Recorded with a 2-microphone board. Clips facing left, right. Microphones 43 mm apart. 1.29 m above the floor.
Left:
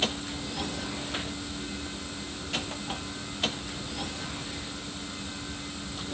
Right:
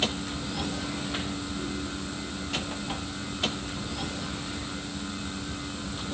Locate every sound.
Only background noise.